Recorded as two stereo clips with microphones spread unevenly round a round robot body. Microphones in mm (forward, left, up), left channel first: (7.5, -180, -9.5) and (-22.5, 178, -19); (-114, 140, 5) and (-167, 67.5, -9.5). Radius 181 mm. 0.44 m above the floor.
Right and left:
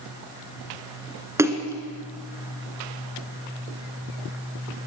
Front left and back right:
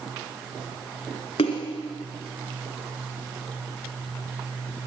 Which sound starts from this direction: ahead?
A splash, at 1.4 s.